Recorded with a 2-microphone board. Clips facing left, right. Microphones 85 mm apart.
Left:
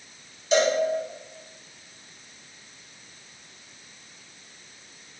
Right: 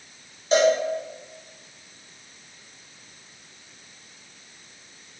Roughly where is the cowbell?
Right.